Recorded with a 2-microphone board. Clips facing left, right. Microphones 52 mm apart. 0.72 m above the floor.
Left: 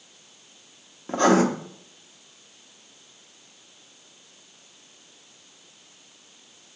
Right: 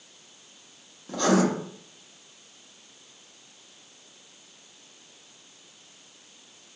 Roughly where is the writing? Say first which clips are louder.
Left 4 dB; left.